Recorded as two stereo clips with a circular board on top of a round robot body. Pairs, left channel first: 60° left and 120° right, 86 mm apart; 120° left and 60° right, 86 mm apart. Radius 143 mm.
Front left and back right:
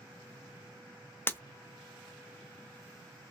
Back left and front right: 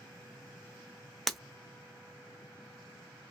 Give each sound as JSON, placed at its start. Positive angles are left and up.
{"t": 1.3, "sound": "breaking glass", "azimuth_deg": 35, "distance_m": 0.6}